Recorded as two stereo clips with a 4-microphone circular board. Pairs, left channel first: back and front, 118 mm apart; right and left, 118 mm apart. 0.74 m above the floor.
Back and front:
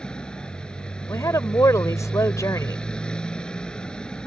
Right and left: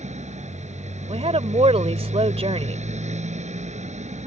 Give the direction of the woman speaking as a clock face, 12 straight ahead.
8 o'clock.